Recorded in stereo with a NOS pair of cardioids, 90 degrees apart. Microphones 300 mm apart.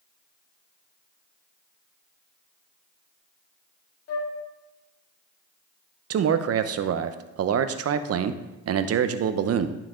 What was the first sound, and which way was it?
A flute, 55° left.